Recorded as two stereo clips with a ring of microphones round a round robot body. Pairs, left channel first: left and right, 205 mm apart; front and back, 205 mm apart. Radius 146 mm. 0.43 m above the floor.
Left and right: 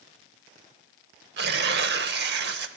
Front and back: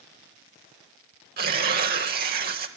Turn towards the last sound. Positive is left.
turn(degrees=-130)